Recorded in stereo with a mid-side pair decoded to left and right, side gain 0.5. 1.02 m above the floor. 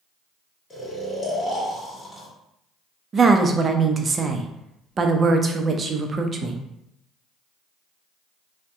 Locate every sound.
0.7 s snoring: 30° left, 1.3 m
3.1 s a woman speaking: 35° right, 0.5 m